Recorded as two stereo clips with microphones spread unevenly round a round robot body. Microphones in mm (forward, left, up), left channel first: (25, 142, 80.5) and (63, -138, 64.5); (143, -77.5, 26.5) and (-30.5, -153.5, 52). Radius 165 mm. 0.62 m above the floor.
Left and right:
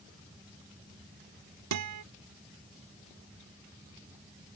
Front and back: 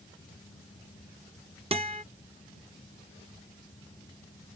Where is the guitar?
95° right.